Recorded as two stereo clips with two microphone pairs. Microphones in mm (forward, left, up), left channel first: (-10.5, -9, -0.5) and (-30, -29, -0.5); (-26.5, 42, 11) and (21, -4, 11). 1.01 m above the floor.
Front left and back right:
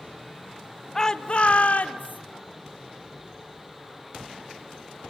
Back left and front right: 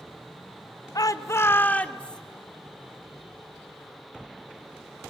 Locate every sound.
0.9 s a shout: 120° left, 1.2 m; by 2.2 s 60° left, 2 m